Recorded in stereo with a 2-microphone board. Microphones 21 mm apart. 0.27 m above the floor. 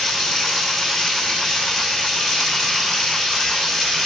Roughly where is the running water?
Centre.